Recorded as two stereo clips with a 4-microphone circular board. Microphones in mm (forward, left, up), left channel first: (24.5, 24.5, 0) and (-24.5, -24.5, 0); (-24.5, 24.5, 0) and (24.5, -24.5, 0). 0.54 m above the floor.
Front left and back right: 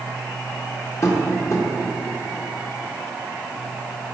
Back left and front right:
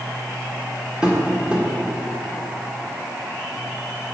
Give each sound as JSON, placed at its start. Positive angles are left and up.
{"t": 1.0, "sound": "tapping", "azimuth_deg": 25, "distance_m": 1.3}